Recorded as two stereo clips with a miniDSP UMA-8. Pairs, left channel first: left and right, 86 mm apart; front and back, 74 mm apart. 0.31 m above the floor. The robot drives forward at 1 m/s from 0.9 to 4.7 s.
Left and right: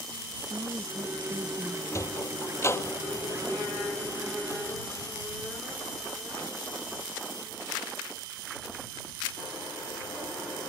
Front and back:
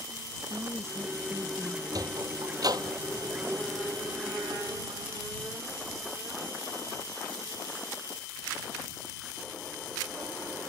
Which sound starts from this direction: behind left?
A sliding door, at 1.9 s.